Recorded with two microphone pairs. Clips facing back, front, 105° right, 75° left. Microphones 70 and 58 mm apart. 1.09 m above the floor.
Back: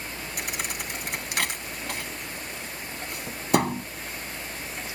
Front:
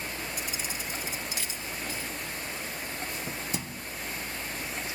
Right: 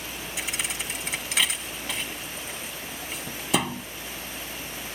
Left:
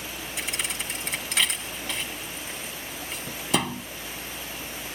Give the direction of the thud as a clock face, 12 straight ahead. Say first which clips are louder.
Back 3 dB, even; 6 o'clock.